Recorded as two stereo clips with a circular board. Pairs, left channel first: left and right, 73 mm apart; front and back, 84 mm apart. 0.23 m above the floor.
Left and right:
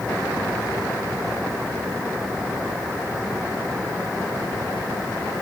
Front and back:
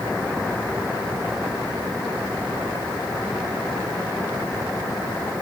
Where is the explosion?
I don't hear an explosion.